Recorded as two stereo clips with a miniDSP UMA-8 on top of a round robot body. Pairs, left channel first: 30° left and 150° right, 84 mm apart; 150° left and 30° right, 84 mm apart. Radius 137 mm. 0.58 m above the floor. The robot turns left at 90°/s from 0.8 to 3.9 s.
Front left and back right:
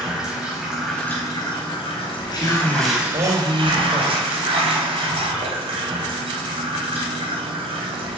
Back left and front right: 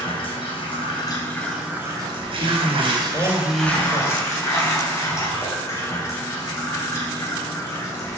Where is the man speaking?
65° right, 4 m; by 4.2 s 155° left, 4 m.